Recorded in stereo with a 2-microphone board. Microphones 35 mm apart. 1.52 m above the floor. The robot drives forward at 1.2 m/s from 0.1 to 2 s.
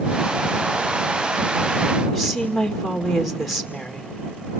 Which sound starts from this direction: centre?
A woman speaking, at 2.1 s.